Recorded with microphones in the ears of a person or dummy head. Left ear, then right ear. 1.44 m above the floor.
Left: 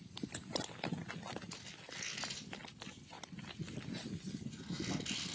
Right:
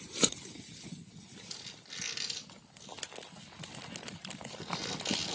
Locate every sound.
1.5 s a squeak: 80° right, 4 m